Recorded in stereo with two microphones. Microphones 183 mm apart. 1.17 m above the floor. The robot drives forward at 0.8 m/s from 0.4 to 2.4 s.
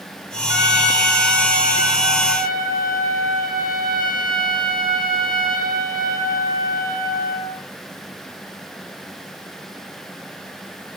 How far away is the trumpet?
About 6 m.